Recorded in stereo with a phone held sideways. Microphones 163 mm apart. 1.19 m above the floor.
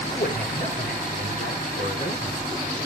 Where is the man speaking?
65° left (ahead or behind), 5 m; by 2.4 s 55° left (ahead or behind), 3.5 m.